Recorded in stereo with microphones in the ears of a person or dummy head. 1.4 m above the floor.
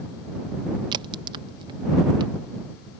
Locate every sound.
0.9 s a crack: 25° right (ahead or behind)